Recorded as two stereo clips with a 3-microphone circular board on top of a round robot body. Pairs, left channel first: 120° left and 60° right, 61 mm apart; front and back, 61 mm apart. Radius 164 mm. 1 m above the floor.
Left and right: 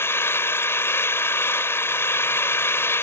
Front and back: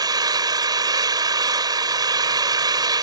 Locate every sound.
0.0 s an engine running: 170° left